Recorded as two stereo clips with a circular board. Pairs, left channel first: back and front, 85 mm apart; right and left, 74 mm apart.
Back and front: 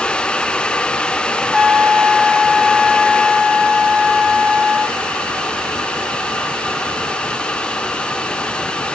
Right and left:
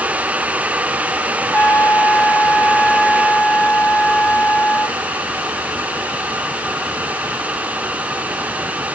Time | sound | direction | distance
1.5 | a trumpet | 85° right | 1.0 m